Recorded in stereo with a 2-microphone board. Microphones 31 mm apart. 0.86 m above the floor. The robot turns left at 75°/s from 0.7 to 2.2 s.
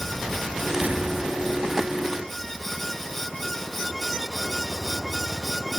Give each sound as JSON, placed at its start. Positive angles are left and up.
{"t": 0.8, "sound": "an explosion", "azimuth_deg": -65, "distance_m": 5.5}